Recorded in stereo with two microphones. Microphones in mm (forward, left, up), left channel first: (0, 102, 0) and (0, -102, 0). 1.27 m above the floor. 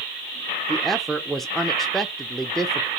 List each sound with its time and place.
0.7 s a woman speaking: centre (ahead or behind), 0.6 m